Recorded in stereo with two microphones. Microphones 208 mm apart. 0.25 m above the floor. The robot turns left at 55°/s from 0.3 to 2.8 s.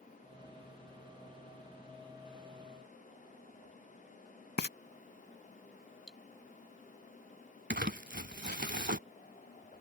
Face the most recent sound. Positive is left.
turn(degrees=-55)  # may be behind; listen again after turning